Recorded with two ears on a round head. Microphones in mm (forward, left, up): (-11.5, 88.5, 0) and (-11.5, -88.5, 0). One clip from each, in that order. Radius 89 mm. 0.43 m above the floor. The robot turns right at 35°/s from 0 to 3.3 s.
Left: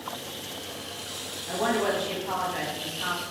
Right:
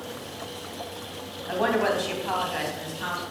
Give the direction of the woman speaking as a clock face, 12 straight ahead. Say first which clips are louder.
Right 2 dB; 2 o'clock.